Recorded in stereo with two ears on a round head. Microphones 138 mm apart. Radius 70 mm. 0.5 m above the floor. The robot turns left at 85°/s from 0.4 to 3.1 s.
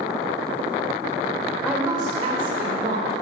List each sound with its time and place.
1.6 s a woman speaking: 5° right, 1.6 m; by 3.1 s 130° right, 1.6 m